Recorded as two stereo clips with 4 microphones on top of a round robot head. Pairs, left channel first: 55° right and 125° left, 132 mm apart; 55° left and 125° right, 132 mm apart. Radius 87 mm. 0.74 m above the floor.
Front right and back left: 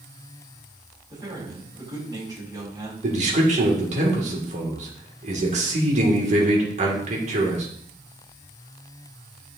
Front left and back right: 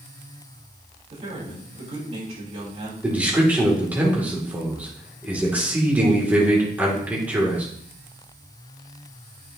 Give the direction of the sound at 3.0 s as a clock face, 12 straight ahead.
7 o'clock.